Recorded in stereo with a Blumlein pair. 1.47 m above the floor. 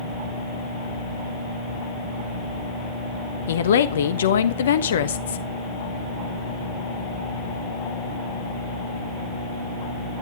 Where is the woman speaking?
65° left, 1.3 m.